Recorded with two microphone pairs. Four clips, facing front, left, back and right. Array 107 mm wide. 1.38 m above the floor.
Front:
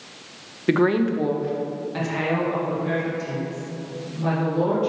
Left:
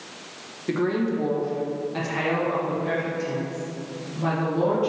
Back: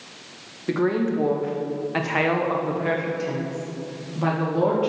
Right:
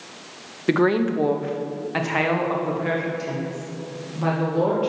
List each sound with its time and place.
0.7 s a woman speaking: 55° right, 0.5 m; by 4.9 s 155° right, 2 m